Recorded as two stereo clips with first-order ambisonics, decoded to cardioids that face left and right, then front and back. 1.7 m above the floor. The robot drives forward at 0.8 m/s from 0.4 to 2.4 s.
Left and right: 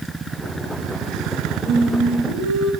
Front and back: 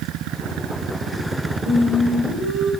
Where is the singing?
145° left, 4.5 m; by 2.7 s 150° left, 5 m.